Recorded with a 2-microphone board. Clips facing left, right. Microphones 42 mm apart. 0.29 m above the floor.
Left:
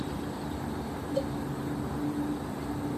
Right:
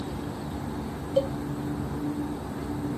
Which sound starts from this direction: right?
A cowbell, at 1.2 s.